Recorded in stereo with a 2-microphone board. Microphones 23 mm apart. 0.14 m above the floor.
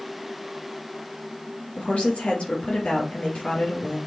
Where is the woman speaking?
60° left (ahead or behind), 3.5 m.